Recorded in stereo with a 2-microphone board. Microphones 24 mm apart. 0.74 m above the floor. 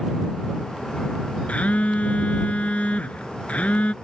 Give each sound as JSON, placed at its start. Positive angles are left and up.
{"t": 1.5, "sound": "a phone buzzing", "side_deg": 55}